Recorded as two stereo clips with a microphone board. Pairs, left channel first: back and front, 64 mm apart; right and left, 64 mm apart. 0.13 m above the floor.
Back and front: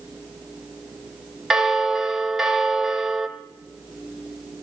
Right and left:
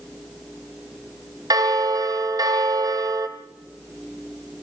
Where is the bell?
85° left, 1.5 m.